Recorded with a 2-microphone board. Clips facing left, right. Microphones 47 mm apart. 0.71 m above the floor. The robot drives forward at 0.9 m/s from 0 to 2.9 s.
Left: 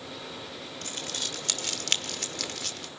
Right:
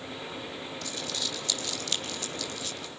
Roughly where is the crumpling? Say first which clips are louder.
Even; left.